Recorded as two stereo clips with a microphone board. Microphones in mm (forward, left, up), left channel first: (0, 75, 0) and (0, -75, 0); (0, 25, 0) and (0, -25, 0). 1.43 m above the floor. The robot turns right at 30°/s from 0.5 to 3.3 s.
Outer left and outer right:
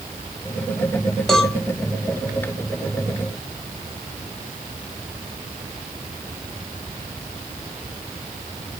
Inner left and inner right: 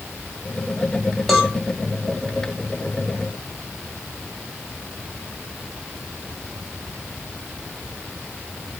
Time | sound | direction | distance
1.3 | a cowbell | centre (ahead or behind) | 0.9 m